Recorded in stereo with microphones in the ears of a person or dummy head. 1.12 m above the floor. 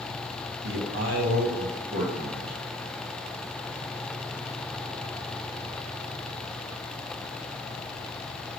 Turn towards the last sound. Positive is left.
turn(degrees=-30)  # may be behind; listen again after turning